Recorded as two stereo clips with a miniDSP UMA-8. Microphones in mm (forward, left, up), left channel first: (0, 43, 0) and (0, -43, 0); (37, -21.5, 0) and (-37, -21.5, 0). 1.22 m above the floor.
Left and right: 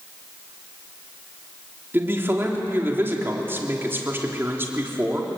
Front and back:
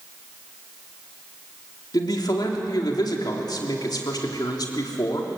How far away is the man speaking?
About 3.5 m.